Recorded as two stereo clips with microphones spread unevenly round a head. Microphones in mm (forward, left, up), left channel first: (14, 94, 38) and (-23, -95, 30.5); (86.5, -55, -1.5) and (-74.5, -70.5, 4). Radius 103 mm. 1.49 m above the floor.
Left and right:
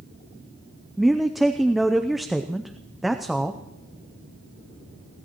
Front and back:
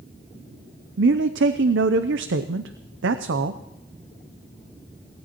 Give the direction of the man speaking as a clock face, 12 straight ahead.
6 o'clock.